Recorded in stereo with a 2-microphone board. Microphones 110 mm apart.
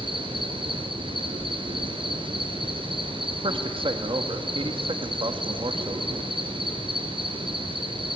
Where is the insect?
50° right (ahead or behind), 3.5 m.